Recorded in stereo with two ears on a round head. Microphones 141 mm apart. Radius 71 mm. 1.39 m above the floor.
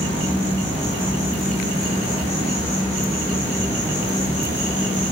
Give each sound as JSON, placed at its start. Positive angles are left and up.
{"t": 0.0, "sound": "an insect", "side_deg": 45, "distance_m": 1.1}